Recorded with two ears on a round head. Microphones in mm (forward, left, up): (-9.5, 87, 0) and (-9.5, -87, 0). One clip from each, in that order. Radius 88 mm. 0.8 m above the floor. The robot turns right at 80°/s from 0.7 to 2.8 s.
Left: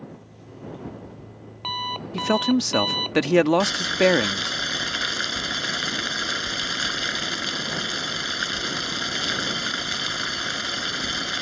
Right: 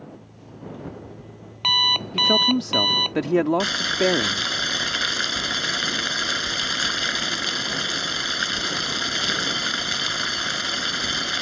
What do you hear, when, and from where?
0.1 s an alarm clock: 170° left; by 3.1 s 25° right
2.1 s a man speaking: 30° left; by 4.5 s 80° left
3.6 s boiling: 10° right (ahead or behind)